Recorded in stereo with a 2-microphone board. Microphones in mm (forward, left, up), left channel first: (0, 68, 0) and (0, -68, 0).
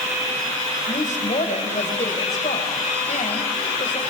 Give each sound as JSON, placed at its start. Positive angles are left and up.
{"t": 0.9, "sound": "a woman speaking", "side_deg": 65, "distance_m": 4.0}